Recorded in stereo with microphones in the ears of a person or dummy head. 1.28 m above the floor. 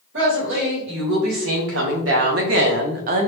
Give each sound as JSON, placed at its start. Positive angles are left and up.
{"t": 0.1, "sound": "a woman speaking", "side_deg": -80, "distance_m": 1.8}